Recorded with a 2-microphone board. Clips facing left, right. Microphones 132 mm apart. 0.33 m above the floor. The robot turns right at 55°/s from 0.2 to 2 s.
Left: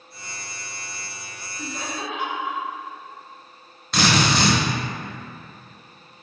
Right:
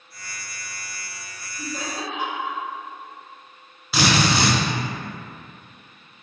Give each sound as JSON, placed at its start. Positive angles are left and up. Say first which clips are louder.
{"t": 1.6, "sound": "laughter", "louder": "right 1 dB", "side_deg": -45, "distance_m": 1.4}
{"t": 3.9, "sound": "a drill", "louder": "even", "side_deg": -5, "distance_m": 0.9}